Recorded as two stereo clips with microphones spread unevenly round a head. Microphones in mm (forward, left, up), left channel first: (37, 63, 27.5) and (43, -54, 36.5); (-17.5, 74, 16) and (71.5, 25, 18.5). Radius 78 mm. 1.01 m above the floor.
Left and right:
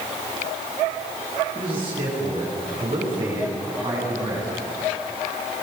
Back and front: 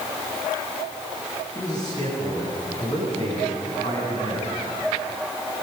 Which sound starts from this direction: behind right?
A man speaking, at 1.6 s.